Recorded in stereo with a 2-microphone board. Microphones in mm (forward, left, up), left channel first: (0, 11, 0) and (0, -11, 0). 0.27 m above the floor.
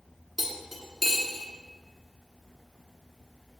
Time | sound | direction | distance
0.4 | cutlery clinking | 5° left (ahead or behind) | 1.5 m